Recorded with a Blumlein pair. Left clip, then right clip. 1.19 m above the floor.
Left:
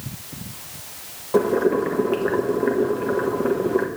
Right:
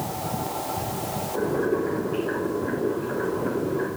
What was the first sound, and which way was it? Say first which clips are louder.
Boiling: left 7 dB; 50° left.